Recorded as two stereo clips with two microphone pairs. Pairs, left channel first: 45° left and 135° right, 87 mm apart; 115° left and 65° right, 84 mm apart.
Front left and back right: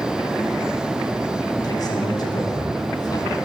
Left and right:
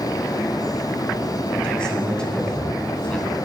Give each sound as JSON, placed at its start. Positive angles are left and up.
{"t": 1.6, "sound": "a man speaking", "azimuth_deg": 40, "distance_m": 1.5}